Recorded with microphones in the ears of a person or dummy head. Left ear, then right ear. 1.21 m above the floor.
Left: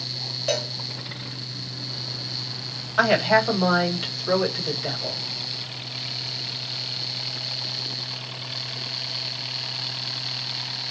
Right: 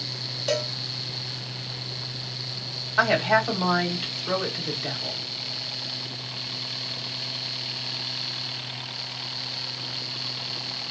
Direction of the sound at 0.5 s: 5° right (ahead or behind).